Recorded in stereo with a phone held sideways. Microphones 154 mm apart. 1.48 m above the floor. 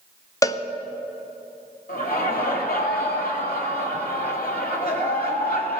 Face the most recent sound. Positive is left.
turn(degrees=75)  # may be behind; listen again after turning